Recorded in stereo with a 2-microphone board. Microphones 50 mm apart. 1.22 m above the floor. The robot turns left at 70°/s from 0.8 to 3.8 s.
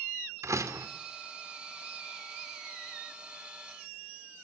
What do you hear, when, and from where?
0.4 s a door slam: 80° right, 2.5 m